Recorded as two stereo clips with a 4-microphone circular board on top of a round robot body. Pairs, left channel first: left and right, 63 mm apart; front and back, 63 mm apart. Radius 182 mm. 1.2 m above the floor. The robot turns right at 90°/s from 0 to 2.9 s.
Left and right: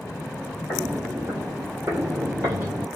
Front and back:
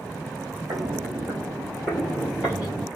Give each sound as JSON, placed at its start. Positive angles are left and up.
{"t": 0.7, "sound": "footsteps", "azimuth_deg": 145, "distance_m": 1.7}